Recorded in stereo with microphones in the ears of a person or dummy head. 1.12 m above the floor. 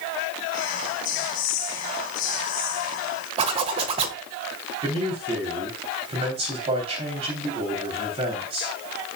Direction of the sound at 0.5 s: 45° left (ahead or behind).